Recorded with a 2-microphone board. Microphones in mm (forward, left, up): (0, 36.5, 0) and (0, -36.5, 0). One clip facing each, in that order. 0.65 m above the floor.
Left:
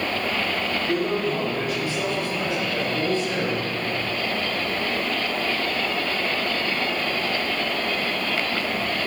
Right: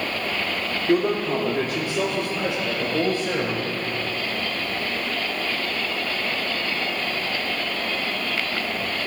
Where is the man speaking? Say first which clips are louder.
Right 5 dB; 35° right (ahead or behind), 1.4 m; by 3.9 s 60° right (ahead or behind), 4 m.